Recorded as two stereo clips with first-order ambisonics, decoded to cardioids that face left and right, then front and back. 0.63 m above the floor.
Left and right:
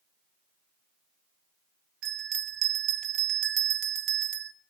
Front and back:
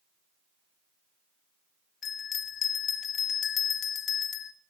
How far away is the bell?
About 1.0 m.